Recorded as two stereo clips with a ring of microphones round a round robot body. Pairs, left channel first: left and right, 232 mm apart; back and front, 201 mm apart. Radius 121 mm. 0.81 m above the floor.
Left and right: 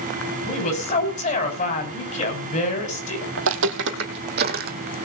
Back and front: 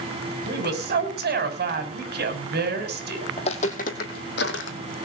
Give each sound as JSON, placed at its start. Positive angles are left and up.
{"t": 0.5, "sound": "a woman speaking", "azimuth_deg": 35, "distance_m": 6.0}
{"t": 3.4, "sound": "footsteps", "azimuth_deg": -115, "distance_m": 1.8}